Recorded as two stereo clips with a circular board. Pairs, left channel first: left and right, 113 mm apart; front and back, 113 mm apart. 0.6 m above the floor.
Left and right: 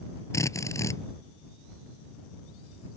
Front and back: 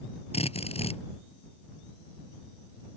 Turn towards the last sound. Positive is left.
turn(degrees=25)